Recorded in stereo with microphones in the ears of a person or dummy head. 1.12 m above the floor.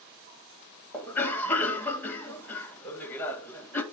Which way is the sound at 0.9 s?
5° left (ahead or behind).